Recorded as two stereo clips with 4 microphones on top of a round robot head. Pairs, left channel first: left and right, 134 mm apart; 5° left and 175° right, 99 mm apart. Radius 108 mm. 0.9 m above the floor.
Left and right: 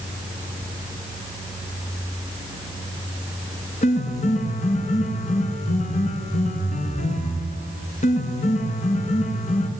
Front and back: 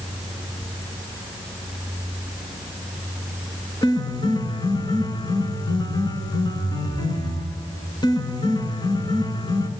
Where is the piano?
55° left, 4 m.